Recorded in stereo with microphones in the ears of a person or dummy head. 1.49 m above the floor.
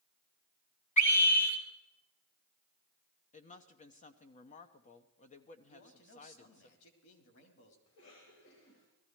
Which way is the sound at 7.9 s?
75° left (ahead or behind).